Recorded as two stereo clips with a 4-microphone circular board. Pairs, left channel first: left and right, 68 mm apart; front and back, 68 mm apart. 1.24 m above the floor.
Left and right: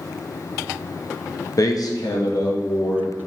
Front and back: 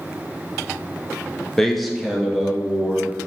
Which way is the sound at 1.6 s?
85° left.